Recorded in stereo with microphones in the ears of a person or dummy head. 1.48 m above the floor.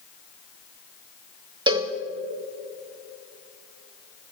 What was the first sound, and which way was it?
A cowbell, 25° right (ahead or behind).